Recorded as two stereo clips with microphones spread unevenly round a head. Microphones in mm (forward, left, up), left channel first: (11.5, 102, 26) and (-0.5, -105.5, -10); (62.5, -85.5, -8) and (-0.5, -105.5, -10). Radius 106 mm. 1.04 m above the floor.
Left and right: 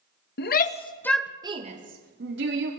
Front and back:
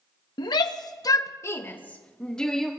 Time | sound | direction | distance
0.4 | a shout | 40° left | 1.2 m